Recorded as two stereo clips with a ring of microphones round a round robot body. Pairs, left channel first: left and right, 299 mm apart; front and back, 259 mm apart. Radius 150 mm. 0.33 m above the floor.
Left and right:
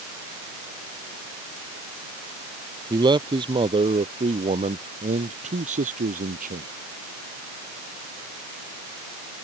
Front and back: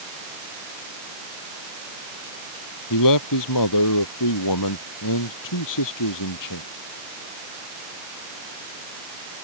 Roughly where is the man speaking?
Ahead.